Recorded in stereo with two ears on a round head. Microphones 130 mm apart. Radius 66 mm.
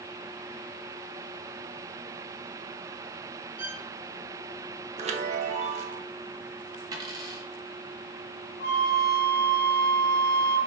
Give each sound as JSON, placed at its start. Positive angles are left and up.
{"t": 3.6, "sound": "a violin", "side_deg": -15, "distance_m": 1.5}
{"t": 5.0, "sound": "a chime", "side_deg": -50, "distance_m": 0.6}
{"t": 6.9, "sound": "a dropped coin", "side_deg": -30, "distance_m": 1.0}
{"t": 8.6, "sound": "a flute", "side_deg": 65, "distance_m": 1.7}